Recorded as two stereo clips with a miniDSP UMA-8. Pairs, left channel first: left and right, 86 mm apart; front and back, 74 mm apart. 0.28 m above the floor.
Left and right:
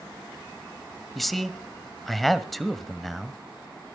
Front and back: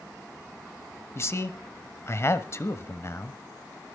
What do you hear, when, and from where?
1.1 s a man speaking: 5° left, 1.3 m